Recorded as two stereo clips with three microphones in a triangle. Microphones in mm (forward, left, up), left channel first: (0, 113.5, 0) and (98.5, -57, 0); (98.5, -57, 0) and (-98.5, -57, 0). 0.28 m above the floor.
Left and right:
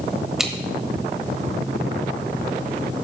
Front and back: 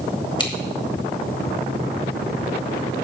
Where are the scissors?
25° left, 1.3 m.